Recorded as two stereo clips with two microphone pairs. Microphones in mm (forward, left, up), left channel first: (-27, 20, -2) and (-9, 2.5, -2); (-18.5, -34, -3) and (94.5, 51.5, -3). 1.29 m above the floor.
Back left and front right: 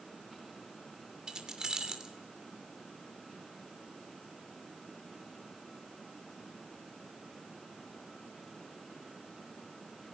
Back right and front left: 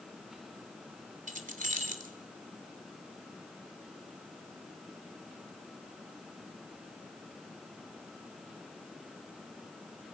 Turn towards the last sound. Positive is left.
turn(degrees=15)